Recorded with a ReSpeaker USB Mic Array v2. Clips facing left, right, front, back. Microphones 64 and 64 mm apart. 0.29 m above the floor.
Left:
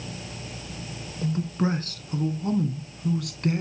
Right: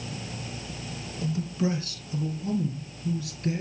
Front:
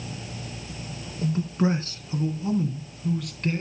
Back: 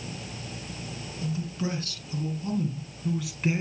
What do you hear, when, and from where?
1.2 s a man speaking: 40° left, 3 m; by 3.6 s 105° left, 2.5 m